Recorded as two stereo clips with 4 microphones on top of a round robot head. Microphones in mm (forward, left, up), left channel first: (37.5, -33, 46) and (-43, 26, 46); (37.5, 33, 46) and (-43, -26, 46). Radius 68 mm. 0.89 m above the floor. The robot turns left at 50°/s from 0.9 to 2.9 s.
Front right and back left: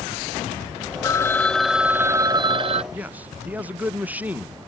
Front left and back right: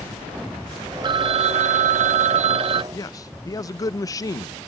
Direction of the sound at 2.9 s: 75° left.